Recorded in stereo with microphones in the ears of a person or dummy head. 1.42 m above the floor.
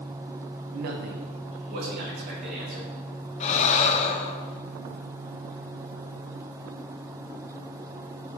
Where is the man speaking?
45° right (ahead or behind), 0.6 m; by 2.9 s 40° right (ahead or behind), 2.5 m.